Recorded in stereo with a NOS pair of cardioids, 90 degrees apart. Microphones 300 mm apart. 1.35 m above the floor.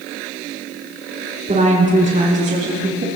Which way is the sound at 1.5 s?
25° right.